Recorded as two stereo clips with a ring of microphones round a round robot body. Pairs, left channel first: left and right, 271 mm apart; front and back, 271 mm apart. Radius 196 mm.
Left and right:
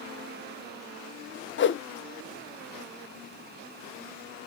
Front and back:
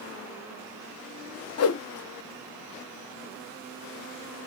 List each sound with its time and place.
1.6 s a whoosh: 40° left, 0.8 m